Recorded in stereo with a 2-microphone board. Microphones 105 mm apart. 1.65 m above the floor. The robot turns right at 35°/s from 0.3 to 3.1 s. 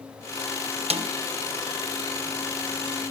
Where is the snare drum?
75° right (ahead or behind), 1.3 m; by 1.1 s 65° right (ahead or behind), 1.3 m.